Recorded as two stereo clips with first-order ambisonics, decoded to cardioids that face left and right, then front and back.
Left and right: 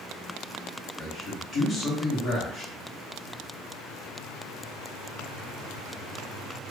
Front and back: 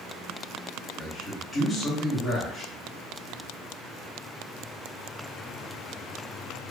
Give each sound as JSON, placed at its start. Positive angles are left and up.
{"t": 1.0, "sound": "a man speaking", "azimuth_deg": 70, "distance_m": 1.0}